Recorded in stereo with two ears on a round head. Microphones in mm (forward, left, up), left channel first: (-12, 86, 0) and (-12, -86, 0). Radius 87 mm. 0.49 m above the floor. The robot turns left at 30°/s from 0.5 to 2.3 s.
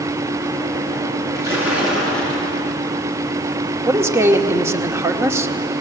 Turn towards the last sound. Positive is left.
turn(degrees=-15)  # may be behind; listen again after turning